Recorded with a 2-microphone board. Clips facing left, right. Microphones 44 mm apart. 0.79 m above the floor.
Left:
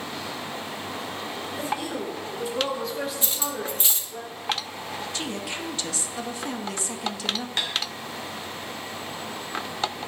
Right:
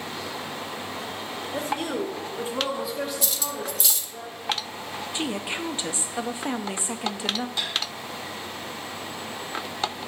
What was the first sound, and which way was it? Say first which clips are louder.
A woman speaking: right 3 dB; 65° right (ahead or behind).